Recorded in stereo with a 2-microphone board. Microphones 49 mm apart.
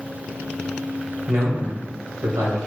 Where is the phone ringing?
No phone ringing in this recording.